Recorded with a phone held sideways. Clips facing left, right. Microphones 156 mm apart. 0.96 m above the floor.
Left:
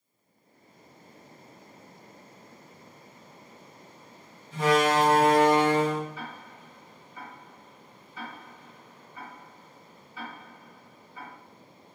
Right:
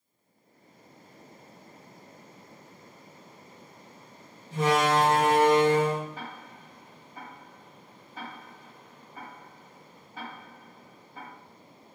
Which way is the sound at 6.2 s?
50° right (ahead or behind).